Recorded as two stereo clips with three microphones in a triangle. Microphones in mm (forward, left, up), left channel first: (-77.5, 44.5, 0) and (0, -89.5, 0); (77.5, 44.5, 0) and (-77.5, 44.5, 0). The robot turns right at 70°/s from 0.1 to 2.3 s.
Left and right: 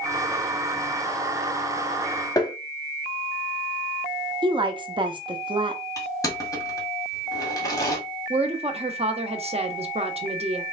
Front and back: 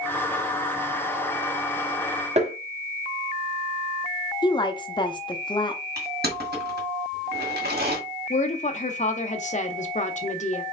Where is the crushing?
170° right, 1.9 m.